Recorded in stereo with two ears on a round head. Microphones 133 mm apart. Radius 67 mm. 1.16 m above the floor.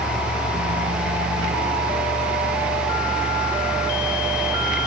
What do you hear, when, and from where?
Only background noise.